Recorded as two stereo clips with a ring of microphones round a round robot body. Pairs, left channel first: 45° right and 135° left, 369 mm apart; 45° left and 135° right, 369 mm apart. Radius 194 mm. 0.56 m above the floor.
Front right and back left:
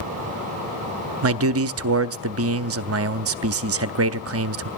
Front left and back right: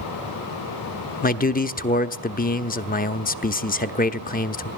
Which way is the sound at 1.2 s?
105° left.